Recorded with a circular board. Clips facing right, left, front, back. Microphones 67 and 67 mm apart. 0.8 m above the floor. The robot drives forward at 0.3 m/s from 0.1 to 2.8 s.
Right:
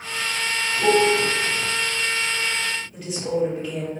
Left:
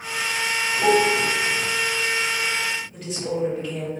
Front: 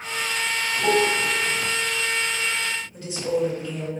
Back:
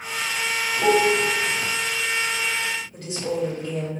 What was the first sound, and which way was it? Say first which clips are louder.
A piano: right 1 dB, back 3 dB; 155° left.